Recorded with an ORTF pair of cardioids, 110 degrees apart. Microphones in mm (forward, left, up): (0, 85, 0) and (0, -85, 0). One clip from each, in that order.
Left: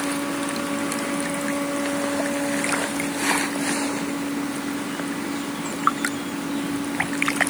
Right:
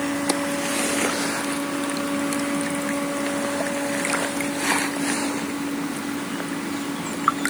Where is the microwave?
I don't hear a microwave.